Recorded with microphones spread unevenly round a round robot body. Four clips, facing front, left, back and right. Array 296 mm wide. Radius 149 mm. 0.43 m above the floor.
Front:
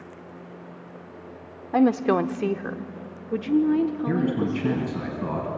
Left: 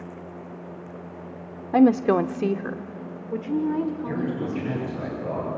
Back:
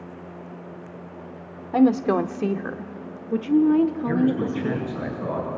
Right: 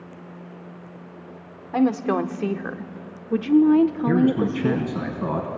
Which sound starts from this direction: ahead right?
A man speaking, at 4.1 s.